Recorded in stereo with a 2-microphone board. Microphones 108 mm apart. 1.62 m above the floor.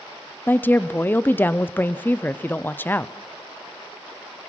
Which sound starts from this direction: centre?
A woman speaking, at 0.5 s.